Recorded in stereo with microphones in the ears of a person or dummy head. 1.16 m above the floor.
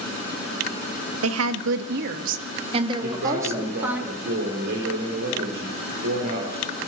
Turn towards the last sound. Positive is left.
turn(degrees=-60)  # may be behind; listen again after turning